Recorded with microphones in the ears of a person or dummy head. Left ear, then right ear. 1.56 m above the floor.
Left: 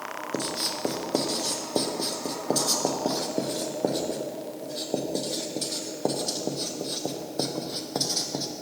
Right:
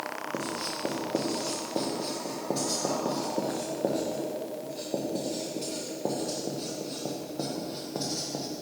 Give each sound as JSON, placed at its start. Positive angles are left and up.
{"t": 0.3, "sound": "writing", "side_deg": 25, "distance_m": 0.6}